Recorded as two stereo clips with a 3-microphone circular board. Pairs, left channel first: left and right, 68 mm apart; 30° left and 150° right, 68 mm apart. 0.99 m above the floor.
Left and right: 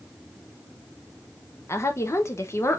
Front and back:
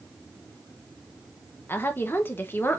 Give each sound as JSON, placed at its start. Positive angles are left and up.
{"t": 1.7, "sound": "a woman speaking", "azimuth_deg": 70, "distance_m": 0.9}